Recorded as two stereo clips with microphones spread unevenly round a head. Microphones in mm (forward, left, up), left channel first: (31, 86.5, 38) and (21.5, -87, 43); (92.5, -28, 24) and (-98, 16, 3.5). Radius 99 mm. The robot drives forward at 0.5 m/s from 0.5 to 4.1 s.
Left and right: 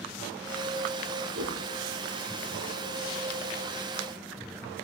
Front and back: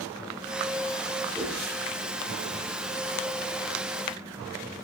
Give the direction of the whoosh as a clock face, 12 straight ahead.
4 o'clock.